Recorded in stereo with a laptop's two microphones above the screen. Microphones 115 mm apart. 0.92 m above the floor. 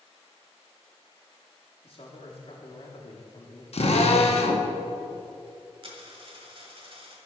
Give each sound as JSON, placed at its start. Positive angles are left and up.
{"t": 1.8, "sound": "a man speaking", "side_deg": 50, "distance_m": 1.5}
{"t": 3.7, "sound": "a drill", "side_deg": 60, "distance_m": 0.8}
{"t": 5.8, "sound": "a dropped coin", "side_deg": -50, "distance_m": 1.2}